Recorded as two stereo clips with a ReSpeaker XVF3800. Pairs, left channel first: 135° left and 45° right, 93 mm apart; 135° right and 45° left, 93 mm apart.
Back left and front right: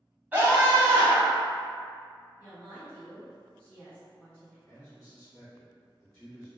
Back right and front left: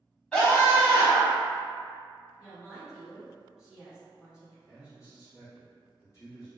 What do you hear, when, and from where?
0.3 s a scream: 70° right, 1.1 m; by 1.4 s 15° right, 1.4 m
2.4 s a woman speaking: 30° right, 1.8 m
4.7 s a man speaking: 150° right, 1.8 m